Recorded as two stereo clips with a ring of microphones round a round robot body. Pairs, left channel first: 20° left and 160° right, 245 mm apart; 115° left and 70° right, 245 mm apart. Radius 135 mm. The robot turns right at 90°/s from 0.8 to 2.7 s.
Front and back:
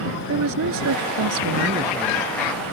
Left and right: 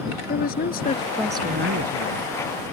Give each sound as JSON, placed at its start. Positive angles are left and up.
{"t": 0.3, "sound": "a woman speaking", "azimuth_deg": 170}